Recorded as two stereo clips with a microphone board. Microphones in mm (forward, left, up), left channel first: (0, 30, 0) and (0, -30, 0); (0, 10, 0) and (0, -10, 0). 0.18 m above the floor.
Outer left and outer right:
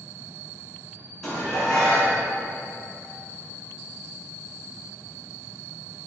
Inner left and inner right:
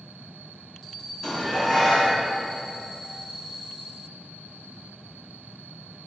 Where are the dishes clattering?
10° left (ahead or behind), 1.0 m.